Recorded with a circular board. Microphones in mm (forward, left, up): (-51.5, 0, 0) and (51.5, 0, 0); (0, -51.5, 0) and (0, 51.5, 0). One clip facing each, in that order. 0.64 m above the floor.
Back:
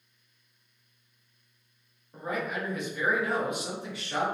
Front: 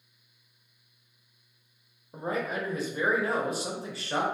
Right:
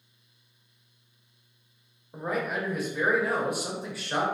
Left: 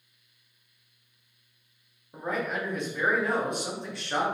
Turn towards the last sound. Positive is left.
turn(degrees=-10)